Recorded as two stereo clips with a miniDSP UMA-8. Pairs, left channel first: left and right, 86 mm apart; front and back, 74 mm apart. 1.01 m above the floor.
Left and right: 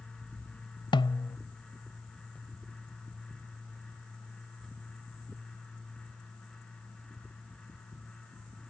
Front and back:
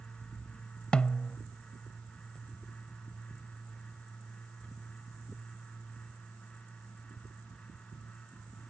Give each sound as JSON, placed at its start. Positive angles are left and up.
{"t": 0.9, "sound": "a snare drum", "azimuth_deg": 75}